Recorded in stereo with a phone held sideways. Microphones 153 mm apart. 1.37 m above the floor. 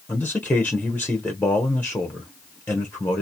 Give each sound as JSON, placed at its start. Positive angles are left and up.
{"t": 0.1, "sound": "a man speaking", "side_deg": 10, "distance_m": 0.8}